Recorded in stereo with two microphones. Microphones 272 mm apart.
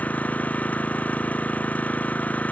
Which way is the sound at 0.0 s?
5° left (ahead or behind).